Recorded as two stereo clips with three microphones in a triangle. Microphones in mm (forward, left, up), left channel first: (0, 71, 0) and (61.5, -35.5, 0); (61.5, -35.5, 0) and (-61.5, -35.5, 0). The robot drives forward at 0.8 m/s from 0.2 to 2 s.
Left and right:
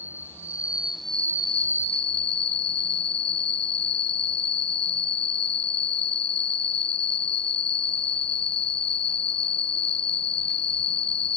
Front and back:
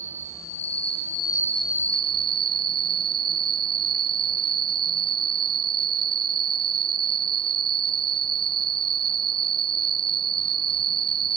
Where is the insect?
15° left; by 11.4 s 135° left.